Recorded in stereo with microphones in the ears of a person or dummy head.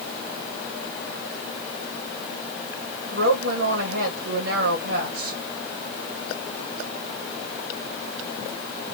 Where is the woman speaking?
85° right, 1.9 m.